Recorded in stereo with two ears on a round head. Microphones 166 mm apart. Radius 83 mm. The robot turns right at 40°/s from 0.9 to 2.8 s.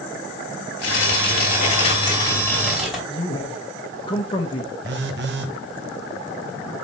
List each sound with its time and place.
0.8 s tearing paper: 105° left, 3 m; by 3.0 s straight behind, 3 m
3.1 s a man speaking: 25° left (ahead or behind), 0.9 m
4.8 s a phone buzzing: 65° right (ahead or behind), 1.0 m